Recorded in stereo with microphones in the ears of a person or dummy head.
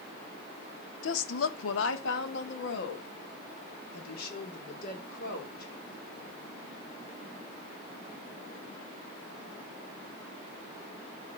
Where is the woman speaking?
75° left (ahead or behind), 0.7 m; by 6.3 s 50° left (ahead or behind), 3.5 m.